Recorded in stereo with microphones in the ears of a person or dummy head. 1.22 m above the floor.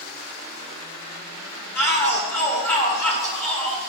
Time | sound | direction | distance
1.8 | a shout | 10° left (ahead or behind) | 3.5 m